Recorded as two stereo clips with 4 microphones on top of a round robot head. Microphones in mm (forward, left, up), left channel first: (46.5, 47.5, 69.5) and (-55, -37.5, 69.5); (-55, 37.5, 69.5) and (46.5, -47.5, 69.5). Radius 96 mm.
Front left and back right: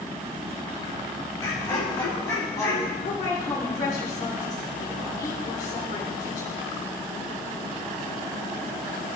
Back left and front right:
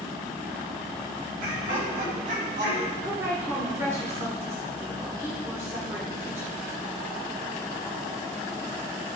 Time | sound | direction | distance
1.4 | laughter | 25° right | 5 m
3.0 | a woman speaking | 30° left | 2.5 m